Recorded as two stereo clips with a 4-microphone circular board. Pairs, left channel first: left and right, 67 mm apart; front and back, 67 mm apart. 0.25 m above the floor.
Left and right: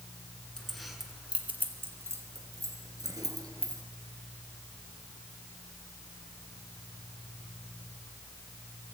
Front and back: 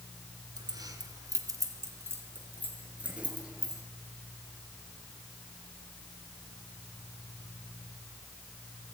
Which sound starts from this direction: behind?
Keys jangling, at 0.6 s.